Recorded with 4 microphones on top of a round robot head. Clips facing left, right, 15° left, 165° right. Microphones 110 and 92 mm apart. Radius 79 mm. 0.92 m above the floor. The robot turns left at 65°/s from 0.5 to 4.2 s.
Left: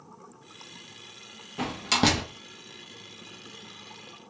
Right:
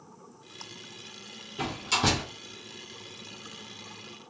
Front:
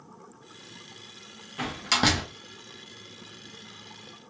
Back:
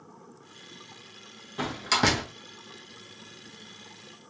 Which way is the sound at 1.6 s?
125° left.